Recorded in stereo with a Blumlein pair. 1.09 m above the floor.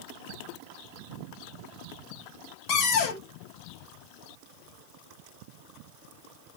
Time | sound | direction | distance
2.7 | a cupboard door | 40° left | 0.8 m